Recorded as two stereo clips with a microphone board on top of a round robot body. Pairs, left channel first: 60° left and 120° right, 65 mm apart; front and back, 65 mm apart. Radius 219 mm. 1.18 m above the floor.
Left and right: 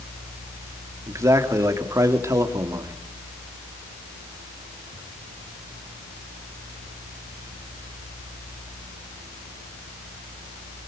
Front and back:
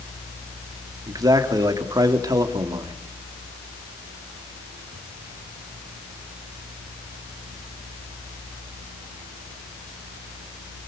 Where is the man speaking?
160° right, 3 m.